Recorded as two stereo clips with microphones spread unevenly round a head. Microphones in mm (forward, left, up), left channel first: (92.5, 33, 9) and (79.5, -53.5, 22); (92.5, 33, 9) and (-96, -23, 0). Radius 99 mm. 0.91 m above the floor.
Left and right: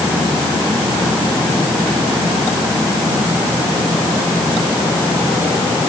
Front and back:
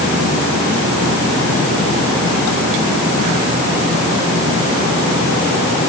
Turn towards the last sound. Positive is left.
No sound to turn to.